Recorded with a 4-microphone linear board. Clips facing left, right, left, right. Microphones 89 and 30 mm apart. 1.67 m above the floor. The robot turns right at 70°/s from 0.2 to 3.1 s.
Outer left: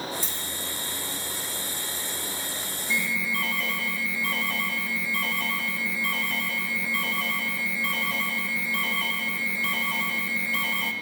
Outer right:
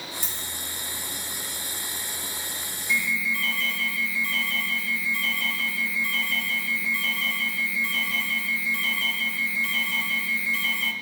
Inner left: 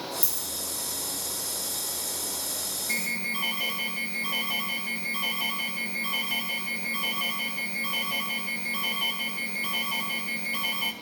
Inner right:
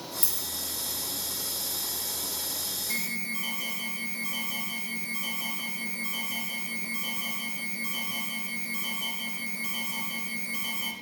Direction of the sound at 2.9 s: 40° left (ahead or behind).